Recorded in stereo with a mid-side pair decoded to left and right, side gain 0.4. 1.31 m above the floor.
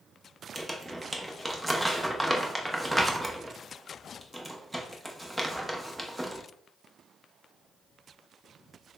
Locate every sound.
0.6 s crumpling: 10° right, 0.8 m